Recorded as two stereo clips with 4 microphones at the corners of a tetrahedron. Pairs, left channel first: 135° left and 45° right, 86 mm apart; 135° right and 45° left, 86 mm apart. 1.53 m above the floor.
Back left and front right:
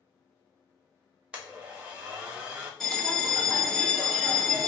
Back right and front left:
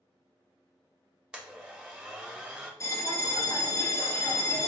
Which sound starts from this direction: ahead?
A blender, at 1.3 s.